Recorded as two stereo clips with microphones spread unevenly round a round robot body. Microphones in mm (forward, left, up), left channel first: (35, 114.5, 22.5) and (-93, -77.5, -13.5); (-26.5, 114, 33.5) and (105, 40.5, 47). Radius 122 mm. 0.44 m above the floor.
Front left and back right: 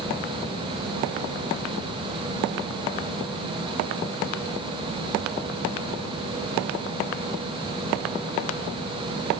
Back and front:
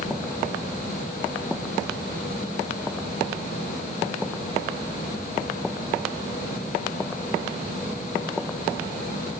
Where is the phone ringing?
No phone ringing in this recording.